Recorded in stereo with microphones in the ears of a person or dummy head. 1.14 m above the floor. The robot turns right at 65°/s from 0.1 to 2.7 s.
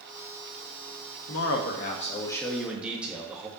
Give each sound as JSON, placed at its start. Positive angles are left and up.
{"t": 1.3, "sound": "a man speaking", "azimuth_deg": 100, "distance_m": 1.6}